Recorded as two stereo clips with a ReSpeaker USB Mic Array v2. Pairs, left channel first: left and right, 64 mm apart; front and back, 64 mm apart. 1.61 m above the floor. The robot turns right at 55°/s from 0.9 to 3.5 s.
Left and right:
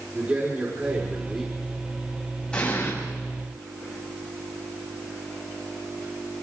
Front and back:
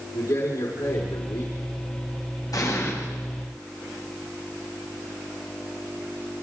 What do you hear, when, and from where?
0.1 s a man speaking: 25° right, 5 m; by 1.5 s 10° left, 5 m
2.5 s an explosion: 15° left, 8 m; by 2.9 s 40° left, 8 m